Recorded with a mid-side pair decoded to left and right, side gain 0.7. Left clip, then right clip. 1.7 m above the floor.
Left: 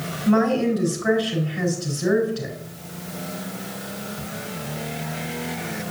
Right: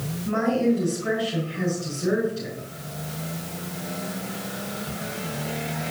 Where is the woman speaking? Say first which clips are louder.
Left 3 dB; 50° left, 4 m.